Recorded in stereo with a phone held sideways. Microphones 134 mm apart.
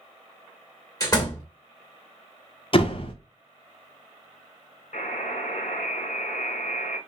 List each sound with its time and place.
1.0 s a door slam: 30° left (ahead or behind), 1.8 m
2.7 s a door slam: 45° left (ahead or behind), 0.9 m
4.9 s a buzzer: 70° left (ahead or behind), 2 m